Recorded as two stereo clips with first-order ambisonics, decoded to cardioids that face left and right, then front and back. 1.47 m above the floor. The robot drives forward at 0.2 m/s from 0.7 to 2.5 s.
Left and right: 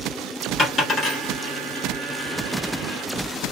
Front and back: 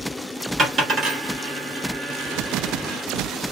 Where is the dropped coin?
140° left, 1.6 m; by 3.0 s 155° left, 1.8 m.